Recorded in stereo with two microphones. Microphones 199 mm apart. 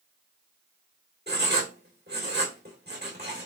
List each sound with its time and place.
1.3 s writing: 55° right (ahead or behind), 2.5 m